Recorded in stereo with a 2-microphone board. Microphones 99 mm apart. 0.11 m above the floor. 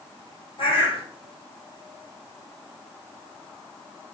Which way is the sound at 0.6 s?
60° left (ahead or behind).